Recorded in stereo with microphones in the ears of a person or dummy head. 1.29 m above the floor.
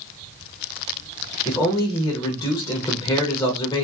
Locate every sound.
1.4 s a man speaking: 20° left (ahead or behind), 0.6 m